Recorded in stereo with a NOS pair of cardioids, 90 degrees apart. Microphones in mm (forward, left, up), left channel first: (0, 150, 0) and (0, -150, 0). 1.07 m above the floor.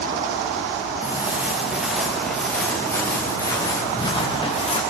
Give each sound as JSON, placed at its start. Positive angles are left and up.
{"t": 1.0, "sound": "footsteps", "azimuth_deg": -5, "distance_m": 6.0}